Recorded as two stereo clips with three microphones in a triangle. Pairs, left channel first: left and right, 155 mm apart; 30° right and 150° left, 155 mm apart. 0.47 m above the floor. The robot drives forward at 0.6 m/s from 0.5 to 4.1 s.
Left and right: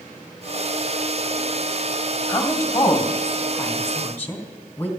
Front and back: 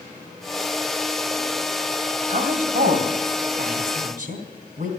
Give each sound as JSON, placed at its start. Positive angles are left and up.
{"t": 2.3, "sound": "a woman speaking", "azimuth_deg": 155, "distance_m": 2.0}